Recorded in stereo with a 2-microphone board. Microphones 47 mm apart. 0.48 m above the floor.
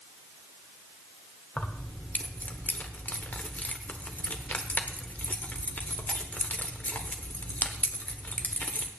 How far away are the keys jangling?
About 1.1 m.